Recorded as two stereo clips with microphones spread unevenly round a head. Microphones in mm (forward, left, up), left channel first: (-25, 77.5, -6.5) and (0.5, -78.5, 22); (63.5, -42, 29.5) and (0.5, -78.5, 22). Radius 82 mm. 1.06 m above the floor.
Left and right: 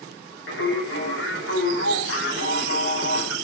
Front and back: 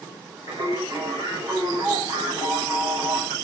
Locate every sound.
0.5 s singing: 90° left, 8.5 m